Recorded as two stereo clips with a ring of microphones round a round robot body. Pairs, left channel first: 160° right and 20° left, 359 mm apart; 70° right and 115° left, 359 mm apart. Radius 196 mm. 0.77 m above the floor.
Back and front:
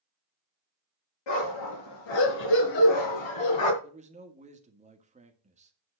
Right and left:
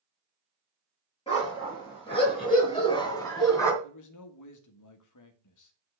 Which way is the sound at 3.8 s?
45° right.